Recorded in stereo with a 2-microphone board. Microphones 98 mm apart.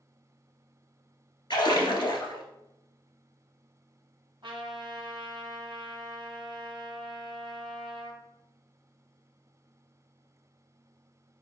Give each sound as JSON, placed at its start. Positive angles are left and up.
{"t": 1.5, "sound": "a splash", "side_deg": 50, "distance_m": 1.3}
{"t": 4.4, "sound": "a trumpet", "side_deg": -55, "distance_m": 2.0}